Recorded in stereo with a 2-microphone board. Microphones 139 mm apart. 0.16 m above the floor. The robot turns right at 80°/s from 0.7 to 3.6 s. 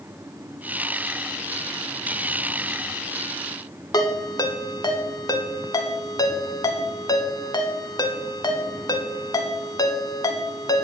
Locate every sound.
3.9 s a ringtone: 30° left (ahead or behind), 0.9 m